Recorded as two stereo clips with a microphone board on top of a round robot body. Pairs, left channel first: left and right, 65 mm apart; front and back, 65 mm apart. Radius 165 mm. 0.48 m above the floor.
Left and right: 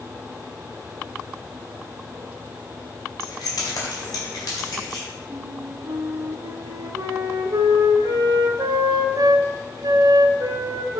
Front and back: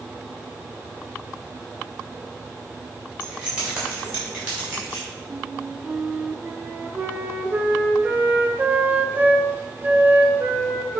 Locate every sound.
3.2 s keys jangling: 110° left, 2 m; by 5.0 s 125° left, 4 m
5.3 s a flute: 115° right, 0.9 m